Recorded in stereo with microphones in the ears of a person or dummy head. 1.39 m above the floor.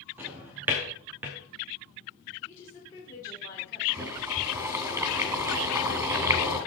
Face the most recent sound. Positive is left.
turn(degrees=-20)  # may be behind; listen again after turning